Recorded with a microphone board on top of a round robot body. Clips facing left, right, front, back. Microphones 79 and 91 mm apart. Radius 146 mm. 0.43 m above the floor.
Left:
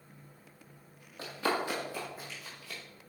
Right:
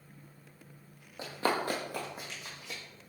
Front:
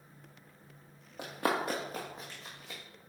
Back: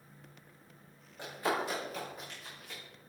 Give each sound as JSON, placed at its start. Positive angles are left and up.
{"t": 1.2, "sound": "running footsteps", "azimuth_deg": -20, "distance_m": 0.9}